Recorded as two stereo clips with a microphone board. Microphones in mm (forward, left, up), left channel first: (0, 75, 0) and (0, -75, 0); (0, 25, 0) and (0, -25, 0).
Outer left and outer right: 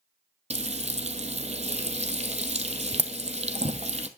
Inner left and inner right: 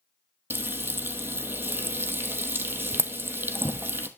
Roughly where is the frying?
Right.